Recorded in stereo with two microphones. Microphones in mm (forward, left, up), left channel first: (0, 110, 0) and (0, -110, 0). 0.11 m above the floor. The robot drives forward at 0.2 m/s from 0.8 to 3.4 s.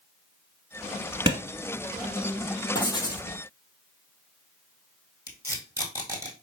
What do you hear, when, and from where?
1.3 s a clap: 20° right (ahead or behind), 1.1 m
2.8 s writing: 20° left (ahead or behind), 1.0 m; by 3.3 s 15° left (ahead or behind), 1.1 m
5.3 s tape being pulled: 15° right (ahead or behind), 1.5 m